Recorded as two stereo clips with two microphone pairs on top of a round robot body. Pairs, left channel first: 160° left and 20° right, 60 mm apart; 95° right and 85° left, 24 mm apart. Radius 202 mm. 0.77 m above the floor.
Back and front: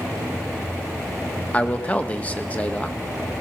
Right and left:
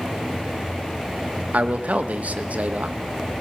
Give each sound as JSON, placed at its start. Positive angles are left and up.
{"t": 1.5, "sound": "a man speaking", "azimuth_deg": 95, "distance_m": 2.0}